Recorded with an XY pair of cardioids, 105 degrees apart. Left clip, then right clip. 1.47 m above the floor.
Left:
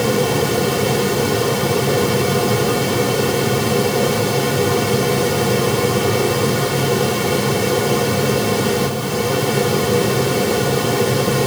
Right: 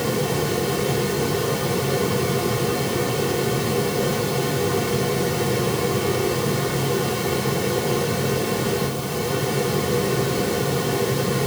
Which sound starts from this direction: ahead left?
A fan, at 0.0 s.